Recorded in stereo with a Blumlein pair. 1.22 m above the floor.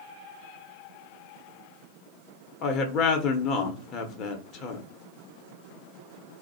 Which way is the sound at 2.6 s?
35° left.